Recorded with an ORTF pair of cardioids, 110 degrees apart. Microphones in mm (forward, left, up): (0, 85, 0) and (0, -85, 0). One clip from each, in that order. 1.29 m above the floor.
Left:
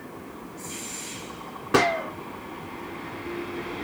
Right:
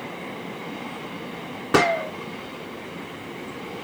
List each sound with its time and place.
1.7 s a gunshot: 15° right, 0.8 m